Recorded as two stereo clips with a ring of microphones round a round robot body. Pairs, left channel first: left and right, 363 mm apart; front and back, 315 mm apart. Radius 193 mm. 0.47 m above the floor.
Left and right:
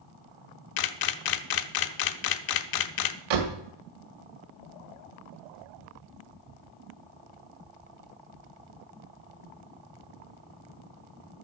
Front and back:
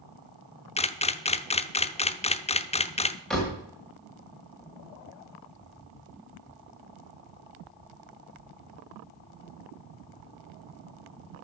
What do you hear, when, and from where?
0.8 s a camera shutter: 70° left, 0.7 m
3.3 s a door slam: 90° right, 1.8 m